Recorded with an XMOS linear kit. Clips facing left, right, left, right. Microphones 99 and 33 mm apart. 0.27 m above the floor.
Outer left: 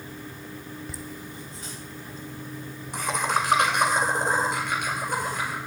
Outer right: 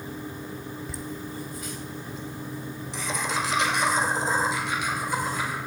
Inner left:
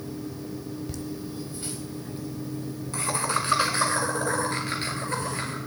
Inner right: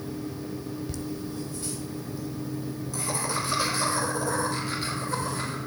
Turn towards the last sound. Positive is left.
turn(degrees=55)  # may be behind; listen again after turning